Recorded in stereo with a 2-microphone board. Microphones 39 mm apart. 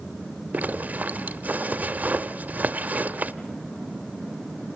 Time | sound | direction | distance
0.5 | a zipper | 45° right (ahead or behind) | 1.0 m